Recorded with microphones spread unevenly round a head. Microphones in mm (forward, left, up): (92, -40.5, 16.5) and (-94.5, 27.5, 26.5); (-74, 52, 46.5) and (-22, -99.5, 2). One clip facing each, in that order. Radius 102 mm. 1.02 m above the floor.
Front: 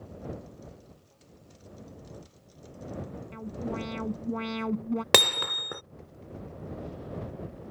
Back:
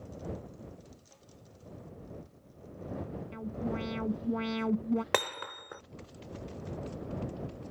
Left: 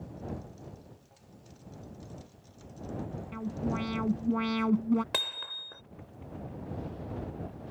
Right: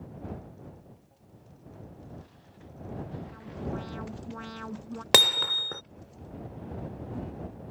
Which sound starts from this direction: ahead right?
Hammering, at 5.1 s.